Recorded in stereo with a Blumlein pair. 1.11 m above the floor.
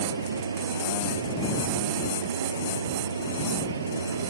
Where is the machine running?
70° right.